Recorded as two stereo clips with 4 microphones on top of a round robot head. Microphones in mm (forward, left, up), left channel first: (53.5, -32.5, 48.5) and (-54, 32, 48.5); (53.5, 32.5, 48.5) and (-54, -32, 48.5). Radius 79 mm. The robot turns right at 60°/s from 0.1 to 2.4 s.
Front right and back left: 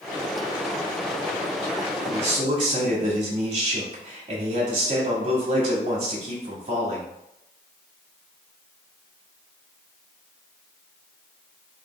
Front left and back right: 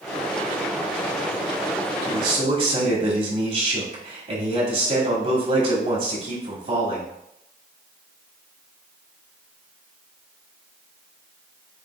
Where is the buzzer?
I don't hear a buzzer.